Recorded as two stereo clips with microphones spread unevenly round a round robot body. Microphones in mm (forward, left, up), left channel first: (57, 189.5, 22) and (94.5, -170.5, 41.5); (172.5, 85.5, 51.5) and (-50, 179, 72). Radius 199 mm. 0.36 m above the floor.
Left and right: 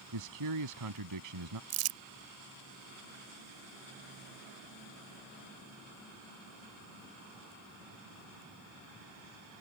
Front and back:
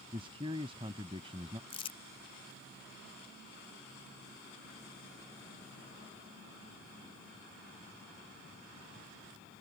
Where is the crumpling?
90° right.